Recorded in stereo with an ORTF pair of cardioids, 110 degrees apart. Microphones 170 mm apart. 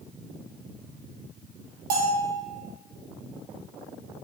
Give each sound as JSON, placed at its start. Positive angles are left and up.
{"t": 1.9, "sound": "a bell", "azimuth_deg": -60, "distance_m": 1.0}